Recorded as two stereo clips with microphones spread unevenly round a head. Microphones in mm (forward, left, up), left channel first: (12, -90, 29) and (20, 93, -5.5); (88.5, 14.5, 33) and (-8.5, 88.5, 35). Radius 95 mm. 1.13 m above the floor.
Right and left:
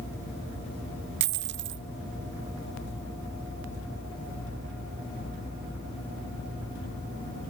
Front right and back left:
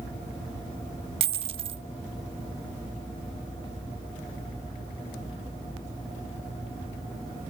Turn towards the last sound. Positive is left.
turn(degrees=115)